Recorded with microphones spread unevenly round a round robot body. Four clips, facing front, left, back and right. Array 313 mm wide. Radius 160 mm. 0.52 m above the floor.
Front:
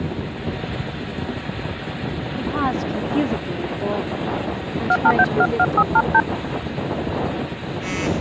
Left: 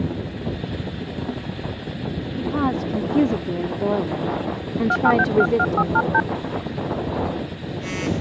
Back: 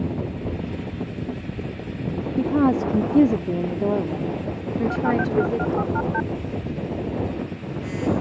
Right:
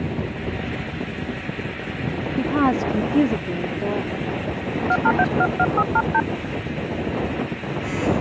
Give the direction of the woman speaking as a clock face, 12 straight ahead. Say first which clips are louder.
Right 3 dB, back 4 dB; 5 o'clock.